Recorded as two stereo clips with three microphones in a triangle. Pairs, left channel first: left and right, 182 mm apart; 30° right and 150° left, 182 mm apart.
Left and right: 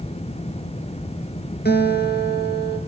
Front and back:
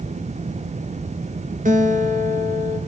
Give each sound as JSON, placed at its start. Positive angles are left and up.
{"t": 1.6, "sound": "a guitar", "azimuth_deg": 110, "distance_m": 2.0}